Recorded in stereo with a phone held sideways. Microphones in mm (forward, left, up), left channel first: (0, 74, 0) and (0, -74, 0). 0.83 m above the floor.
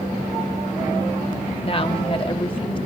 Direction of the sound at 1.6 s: 40° left (ahead or behind).